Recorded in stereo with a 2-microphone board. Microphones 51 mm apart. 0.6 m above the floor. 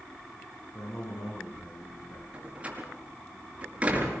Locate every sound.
0.7 s a man speaking: 80° left, 6.5 m
2.3 s a door slam: 25° right (ahead or behind), 5.5 m